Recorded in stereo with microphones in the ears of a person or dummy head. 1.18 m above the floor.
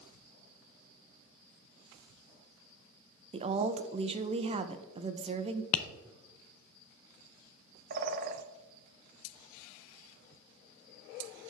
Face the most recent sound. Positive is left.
turn(degrees=-45)  # may be behind; listen again after turning